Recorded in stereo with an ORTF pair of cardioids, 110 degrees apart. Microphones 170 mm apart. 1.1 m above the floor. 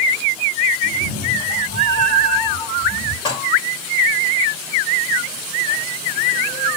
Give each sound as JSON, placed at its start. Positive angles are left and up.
{"t": 0.8, "sound": "a cat meowing", "azimuth_deg": 50, "distance_m": 2.0}
{"t": 3.2, "sound": "dishes clattering", "azimuth_deg": 25, "distance_m": 6.0}